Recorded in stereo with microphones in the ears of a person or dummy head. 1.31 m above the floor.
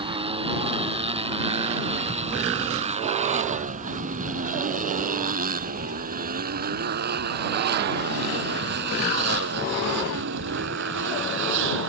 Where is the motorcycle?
25° right (ahead or behind); by 11.9 s 65° right (ahead or behind).